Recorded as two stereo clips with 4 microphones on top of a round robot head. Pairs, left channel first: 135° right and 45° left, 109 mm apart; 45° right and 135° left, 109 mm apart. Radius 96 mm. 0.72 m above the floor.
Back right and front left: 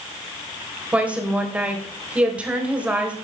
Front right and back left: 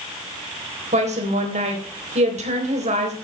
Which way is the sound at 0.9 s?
125° left.